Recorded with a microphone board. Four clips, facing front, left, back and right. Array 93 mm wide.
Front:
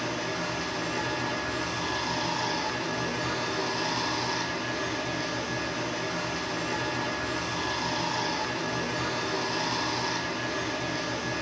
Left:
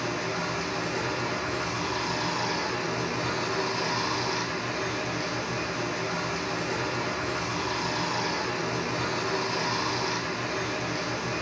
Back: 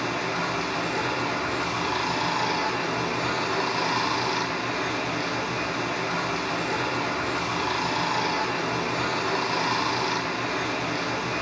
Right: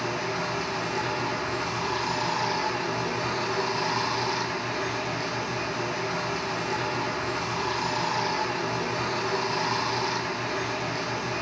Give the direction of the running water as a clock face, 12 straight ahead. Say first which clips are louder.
Right 1 dB, back 4 dB; 6 o'clock.